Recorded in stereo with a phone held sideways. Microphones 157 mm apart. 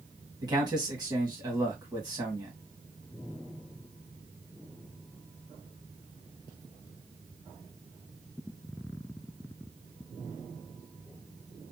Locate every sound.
0.4 s a man speaking: 25° right (ahead or behind), 1.7 m